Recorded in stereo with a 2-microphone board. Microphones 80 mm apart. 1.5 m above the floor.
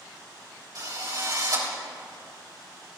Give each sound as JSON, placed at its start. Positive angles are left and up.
{"t": 0.8, "sound": "a drill", "side_deg": -55, "distance_m": 3.0}